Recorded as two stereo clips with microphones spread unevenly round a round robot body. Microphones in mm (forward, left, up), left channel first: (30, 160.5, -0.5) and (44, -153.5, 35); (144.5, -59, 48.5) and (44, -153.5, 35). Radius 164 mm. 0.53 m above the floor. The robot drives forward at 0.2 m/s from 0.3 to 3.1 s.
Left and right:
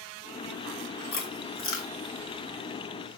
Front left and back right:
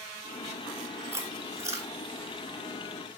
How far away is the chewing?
About 2.5 m.